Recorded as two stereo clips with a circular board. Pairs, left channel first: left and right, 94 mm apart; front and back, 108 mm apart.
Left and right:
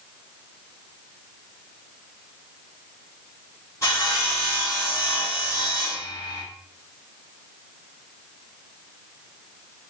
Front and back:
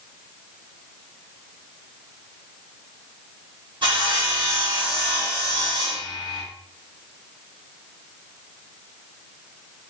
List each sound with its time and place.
3.8 s sawing: 145° left, 3 m